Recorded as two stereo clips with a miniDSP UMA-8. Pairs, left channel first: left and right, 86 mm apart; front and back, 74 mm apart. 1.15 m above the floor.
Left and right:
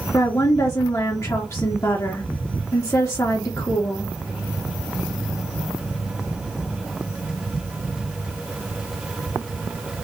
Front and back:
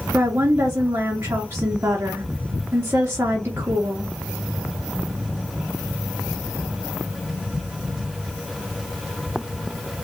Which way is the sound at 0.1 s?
130° left.